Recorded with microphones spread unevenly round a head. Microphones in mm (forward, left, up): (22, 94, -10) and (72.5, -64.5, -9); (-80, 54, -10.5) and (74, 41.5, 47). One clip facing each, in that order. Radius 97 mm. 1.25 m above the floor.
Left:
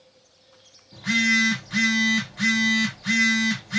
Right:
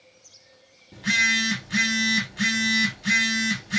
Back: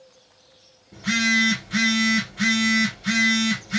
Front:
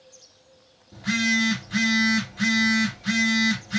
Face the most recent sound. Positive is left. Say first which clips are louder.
# left 6 dB, back 1 dB
turn(degrees=-50)